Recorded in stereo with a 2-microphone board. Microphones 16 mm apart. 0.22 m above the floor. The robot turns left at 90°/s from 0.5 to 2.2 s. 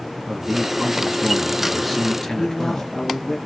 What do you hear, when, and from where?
0.3 s a man speaking: 60° right, 4 m; by 2.9 s 145° left, 4 m
2.3 s a man speaking: 30° left (ahead or behind), 4.5 m